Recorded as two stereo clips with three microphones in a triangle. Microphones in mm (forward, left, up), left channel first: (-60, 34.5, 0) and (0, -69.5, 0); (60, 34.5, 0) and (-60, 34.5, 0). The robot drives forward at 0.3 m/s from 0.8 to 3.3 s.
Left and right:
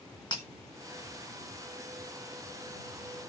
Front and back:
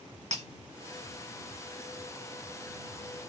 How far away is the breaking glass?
About 1.8 m.